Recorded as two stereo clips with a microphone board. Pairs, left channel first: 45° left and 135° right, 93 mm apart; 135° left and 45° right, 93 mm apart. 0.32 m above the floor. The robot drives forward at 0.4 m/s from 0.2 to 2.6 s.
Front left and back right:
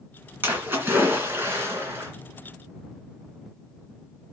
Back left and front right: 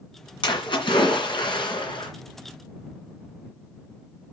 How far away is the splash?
About 2 m.